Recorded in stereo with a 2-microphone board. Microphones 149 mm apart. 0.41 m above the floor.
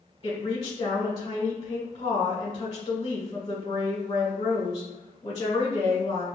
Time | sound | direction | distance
0.2 | a woman speaking | 40° left (ahead or behind) | 1.3 m